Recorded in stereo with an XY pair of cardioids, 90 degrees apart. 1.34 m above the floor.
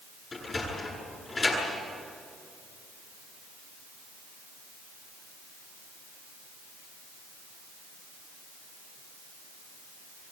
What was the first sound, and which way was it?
A sliding door, 35° left.